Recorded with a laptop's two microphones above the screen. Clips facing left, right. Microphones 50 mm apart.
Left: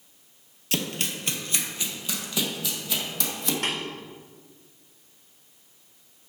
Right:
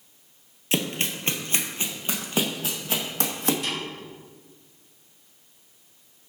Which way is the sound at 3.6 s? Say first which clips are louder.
Left 2 dB; 80° left.